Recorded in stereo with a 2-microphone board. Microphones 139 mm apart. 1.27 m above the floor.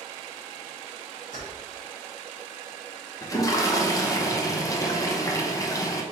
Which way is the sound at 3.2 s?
25° left (ahead or behind).